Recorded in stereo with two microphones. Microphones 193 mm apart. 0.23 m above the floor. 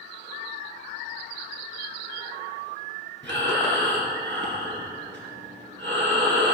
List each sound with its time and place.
3.2 s breathing: 70° right (ahead or behind), 2.5 m